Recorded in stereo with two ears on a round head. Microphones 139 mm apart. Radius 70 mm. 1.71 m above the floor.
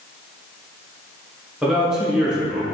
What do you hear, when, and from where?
1.6 s a man speaking: 5° right (ahead or behind), 0.8 m